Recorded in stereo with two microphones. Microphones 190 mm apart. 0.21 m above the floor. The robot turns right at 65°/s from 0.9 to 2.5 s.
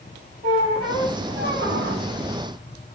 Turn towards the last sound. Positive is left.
turn(degrees=-40)